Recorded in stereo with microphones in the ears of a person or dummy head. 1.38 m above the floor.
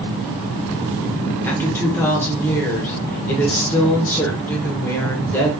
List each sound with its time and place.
1.4 s a woman speaking: 15° left (ahead or behind), 0.9 m